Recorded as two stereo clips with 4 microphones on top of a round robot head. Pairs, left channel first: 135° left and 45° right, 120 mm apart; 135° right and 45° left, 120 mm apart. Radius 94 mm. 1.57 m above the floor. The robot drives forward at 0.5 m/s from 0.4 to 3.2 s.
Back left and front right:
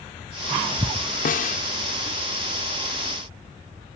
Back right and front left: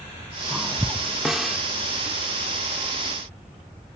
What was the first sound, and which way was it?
A snare drum, 130° left.